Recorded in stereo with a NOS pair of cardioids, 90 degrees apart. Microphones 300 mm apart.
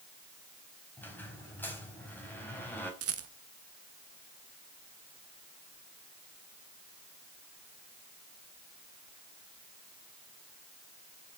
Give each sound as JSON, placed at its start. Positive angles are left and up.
{"t": 1.0, "sound": "a squeak", "azimuth_deg": 5, "distance_m": 4.5}
{"t": 3.0, "sound": "a rattle", "azimuth_deg": -50, "distance_m": 1.4}